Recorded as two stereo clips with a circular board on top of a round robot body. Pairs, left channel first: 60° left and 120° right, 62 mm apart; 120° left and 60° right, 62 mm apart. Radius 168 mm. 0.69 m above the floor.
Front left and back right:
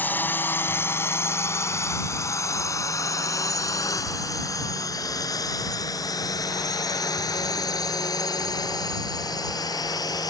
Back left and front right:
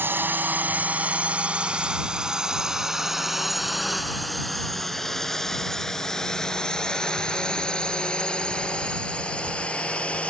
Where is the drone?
5° right; by 10.3 s 50° left.